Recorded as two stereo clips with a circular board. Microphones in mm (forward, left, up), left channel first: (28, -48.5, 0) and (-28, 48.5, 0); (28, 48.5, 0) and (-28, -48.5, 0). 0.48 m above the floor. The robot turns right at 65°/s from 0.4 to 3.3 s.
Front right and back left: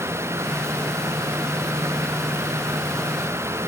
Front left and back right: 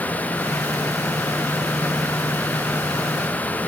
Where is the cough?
I don't hear a cough.